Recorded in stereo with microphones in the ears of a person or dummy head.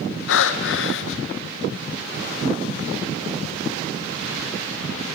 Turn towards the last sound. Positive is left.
turn(degrees=75)  # may be behind; listen again after turning